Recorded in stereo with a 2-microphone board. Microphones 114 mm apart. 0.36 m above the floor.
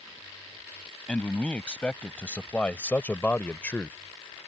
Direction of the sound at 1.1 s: 10° left (ahead or behind).